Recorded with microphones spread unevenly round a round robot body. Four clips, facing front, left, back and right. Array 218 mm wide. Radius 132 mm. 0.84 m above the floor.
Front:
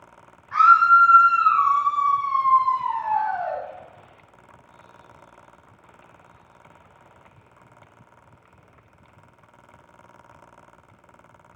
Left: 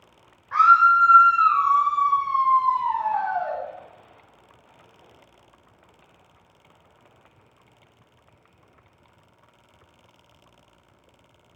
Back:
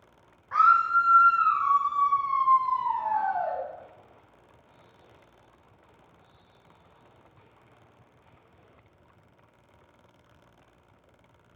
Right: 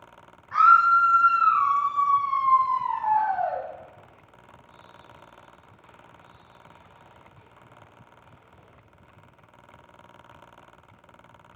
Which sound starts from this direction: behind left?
A scream, at 0.5 s.